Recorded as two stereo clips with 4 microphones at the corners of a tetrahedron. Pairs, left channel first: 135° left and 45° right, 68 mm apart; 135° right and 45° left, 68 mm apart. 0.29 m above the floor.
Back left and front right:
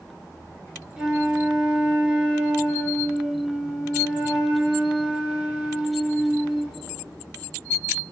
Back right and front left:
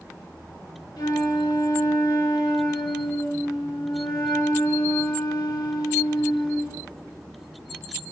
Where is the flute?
120° right, 2 m.